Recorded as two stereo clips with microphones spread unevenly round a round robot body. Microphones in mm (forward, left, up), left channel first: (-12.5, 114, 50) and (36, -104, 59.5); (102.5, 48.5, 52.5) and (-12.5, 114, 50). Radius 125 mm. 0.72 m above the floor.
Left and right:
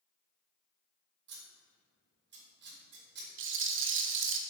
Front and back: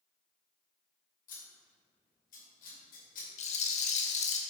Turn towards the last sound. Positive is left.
turn(degrees=-55)